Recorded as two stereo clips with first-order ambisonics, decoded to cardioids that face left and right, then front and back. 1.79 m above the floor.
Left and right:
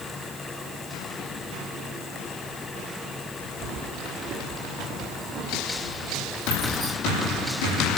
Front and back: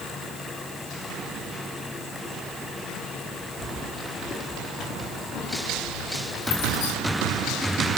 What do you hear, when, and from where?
3.6 s keys jangling: 80° right, 3 m; by 6.9 s 10° right, 4.5 m